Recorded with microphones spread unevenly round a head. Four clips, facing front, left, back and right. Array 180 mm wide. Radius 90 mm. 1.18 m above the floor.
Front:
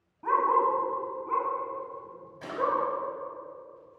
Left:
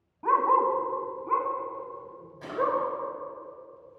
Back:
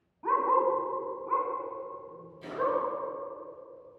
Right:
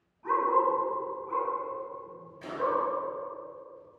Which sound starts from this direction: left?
A dog barking, at 0.2 s.